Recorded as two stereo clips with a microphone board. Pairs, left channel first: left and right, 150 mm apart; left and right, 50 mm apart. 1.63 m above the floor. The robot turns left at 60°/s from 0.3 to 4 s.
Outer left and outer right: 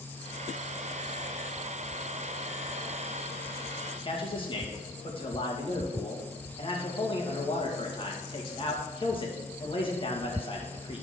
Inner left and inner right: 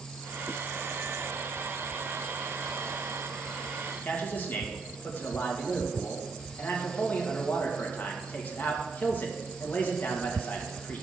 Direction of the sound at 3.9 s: 30° left (ahead or behind).